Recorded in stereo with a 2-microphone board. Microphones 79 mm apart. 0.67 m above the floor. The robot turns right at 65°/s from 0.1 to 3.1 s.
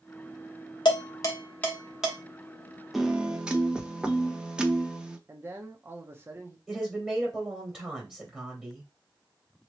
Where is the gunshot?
No gunshot in this recording.